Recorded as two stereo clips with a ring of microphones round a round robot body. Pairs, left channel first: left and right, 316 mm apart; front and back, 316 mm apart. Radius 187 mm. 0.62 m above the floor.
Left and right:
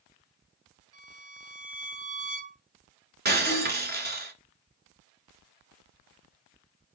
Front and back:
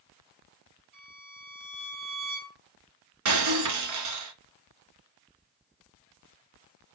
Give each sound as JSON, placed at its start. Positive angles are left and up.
{"t": 0.9, "sound": "a violin", "azimuth_deg": -130, "distance_m": 4.0}
{"t": 3.2, "sound": "breaking glass", "azimuth_deg": -150, "distance_m": 2.0}